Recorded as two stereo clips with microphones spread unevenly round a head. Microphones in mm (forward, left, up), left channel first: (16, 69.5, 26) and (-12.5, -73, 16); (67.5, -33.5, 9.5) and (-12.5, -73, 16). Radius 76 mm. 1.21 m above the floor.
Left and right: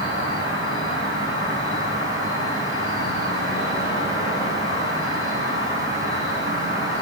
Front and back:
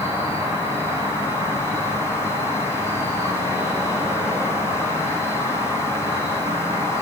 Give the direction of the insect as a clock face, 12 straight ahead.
9 o'clock.